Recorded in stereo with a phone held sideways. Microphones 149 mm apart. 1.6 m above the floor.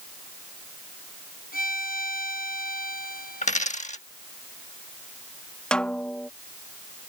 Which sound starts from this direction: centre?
A snare drum, at 5.7 s.